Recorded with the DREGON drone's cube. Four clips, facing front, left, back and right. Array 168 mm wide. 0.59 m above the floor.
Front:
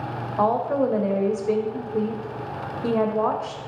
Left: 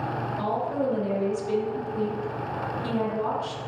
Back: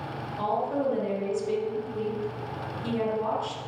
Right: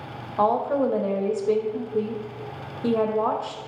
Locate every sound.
0.4 s a woman speaking: 40° right, 2 m